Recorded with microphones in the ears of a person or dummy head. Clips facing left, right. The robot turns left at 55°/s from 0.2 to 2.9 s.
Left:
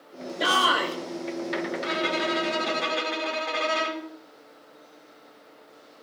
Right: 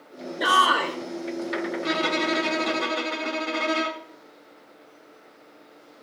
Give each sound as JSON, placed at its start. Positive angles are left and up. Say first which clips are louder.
{"t": 0.4, "sound": "a shout", "louder": "right 1 dB", "azimuth_deg": 25, "distance_m": 3.0}
{"t": 1.8, "sound": "a violin", "louder": "right 4 dB", "azimuth_deg": -75, "distance_m": 2.0}